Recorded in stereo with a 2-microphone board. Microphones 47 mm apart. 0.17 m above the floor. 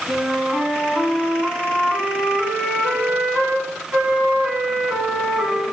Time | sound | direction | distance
0.1 | a flute | 20° right (ahead or behind) | 1.7 m